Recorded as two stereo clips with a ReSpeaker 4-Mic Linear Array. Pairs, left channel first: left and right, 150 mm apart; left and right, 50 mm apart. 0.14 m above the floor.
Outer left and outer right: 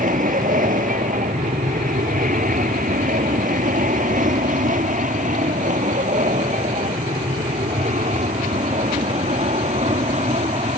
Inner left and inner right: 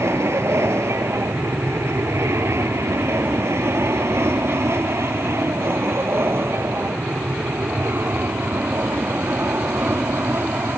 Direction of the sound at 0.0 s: 60° right (ahead or behind).